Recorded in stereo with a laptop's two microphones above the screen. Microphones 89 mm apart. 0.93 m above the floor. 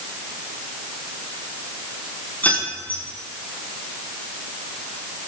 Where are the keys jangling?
20° left (ahead or behind), 5.5 m.